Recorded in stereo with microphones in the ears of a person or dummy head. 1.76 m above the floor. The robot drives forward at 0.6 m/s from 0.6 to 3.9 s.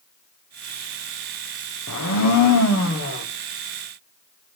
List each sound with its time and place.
1.9 s a blender: 80° left, 1.2 m; by 3.2 s 55° left (ahead or behind), 1.5 m